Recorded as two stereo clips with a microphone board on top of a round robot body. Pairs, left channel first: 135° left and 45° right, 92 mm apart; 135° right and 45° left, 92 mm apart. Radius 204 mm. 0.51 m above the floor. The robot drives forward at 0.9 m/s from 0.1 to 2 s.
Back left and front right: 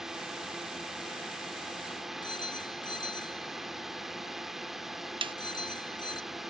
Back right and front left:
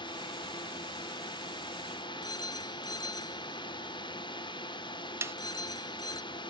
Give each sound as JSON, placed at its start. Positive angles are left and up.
{"t": 0.0, "sound": "a drone", "azimuth_deg": -130}
{"t": 2.2, "sound": "a phone ringing", "azimuth_deg": 175}
{"t": 5.2, "sound": "a snare drum", "azimuth_deg": -20}